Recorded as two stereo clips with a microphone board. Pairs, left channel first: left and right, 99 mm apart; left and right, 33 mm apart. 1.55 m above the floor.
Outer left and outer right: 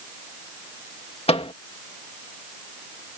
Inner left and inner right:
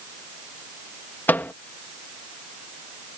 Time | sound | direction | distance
1.3 | a microwave | 80° left | ?